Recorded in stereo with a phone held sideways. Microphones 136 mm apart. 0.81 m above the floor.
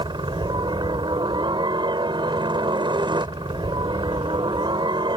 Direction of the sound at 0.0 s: 35° right (ahead or behind).